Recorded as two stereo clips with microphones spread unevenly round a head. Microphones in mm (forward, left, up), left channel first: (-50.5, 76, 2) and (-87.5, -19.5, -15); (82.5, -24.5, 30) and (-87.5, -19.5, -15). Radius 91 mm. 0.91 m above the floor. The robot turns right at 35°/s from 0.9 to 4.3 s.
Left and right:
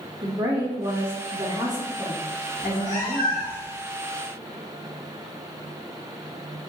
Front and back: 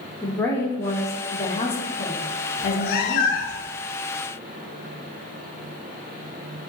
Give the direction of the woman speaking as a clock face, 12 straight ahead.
3 o'clock.